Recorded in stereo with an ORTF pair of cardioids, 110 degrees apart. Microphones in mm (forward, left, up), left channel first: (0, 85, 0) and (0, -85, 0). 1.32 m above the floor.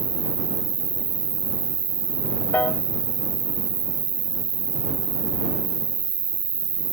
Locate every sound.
0.0 s an insect: 35° right
2.5 s a piano: 10° left